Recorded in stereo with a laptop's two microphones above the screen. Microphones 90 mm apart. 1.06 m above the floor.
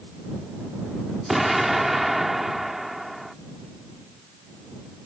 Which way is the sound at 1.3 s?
Centre (ahead or behind).